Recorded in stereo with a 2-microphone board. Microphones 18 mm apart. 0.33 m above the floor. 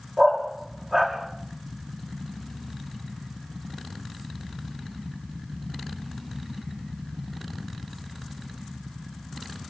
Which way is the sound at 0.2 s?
35° right (ahead or behind).